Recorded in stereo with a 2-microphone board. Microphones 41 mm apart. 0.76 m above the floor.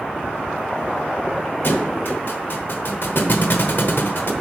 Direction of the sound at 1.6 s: 60° left (ahead or behind).